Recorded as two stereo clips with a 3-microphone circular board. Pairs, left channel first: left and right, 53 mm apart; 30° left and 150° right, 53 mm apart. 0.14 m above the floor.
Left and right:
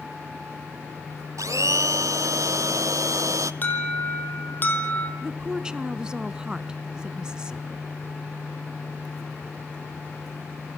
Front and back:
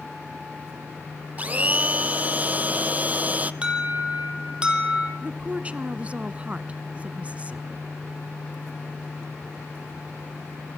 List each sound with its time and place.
1.4 s a blender: 90° right, 0.8 m
3.6 s an alarm: 140° left, 4 m
5.2 s a woman speaking: 145° right, 1.1 m